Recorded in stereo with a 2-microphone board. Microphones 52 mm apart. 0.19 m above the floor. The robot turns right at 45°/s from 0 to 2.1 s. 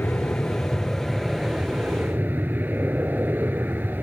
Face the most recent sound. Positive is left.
turn(degrees=-135)